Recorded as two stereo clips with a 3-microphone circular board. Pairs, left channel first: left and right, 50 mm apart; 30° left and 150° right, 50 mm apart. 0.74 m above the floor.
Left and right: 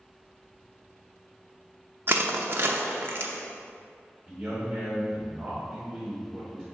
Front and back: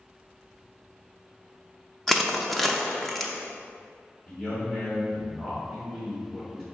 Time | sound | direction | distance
2.1 | crushing | 55° right | 0.6 m
4.3 | a man speaking | 15° right | 1.9 m